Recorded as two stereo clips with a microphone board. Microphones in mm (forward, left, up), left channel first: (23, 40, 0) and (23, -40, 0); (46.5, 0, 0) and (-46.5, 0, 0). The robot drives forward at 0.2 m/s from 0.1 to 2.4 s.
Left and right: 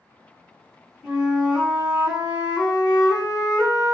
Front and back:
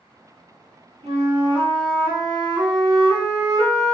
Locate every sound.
1.0 s a flute: 170° right, 1.3 m; by 4.0 s 175° right, 1.6 m